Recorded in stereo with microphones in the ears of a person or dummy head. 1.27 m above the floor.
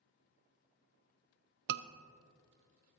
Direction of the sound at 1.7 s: 65° right (ahead or behind).